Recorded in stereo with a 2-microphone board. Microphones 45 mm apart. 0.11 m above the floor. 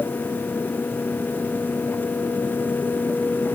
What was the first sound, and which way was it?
Only background noise.